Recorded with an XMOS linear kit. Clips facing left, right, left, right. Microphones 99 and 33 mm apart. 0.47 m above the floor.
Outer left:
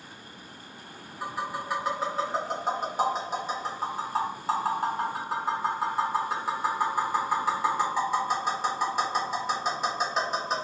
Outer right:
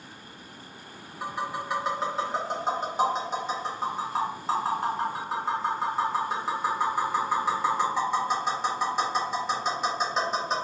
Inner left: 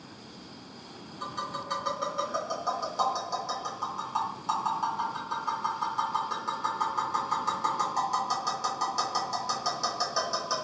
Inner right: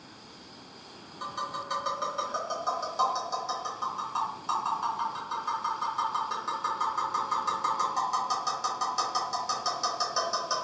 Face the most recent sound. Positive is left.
turn(degrees=5)  # may be behind; listen again after turning